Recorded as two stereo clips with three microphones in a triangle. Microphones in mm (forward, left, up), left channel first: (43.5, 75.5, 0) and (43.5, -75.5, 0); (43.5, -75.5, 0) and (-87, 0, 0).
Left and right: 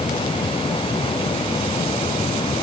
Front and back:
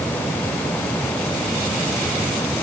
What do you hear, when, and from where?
Only background noise.